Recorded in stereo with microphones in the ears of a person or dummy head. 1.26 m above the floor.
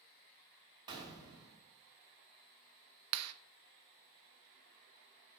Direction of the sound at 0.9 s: 25° right (ahead or behind).